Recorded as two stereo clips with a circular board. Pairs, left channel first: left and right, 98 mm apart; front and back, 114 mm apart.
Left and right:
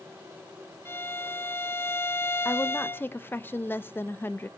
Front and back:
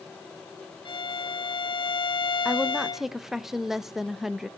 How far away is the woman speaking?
About 0.6 m.